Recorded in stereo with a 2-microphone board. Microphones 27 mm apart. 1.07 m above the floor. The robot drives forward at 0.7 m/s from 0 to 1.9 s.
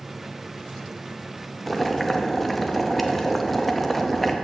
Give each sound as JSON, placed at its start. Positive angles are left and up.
{"t": 1.7, "sound": "boiling", "side_deg": 15, "distance_m": 0.5}